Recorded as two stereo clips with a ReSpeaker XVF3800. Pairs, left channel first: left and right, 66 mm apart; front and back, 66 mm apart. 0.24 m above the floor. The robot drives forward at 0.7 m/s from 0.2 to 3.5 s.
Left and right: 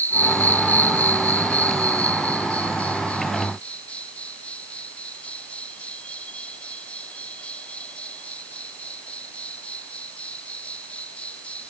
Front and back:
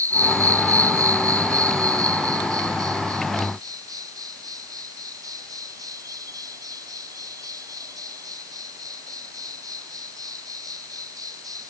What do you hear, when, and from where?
0.0 s an insect: 150° left; by 11.7 s 160° left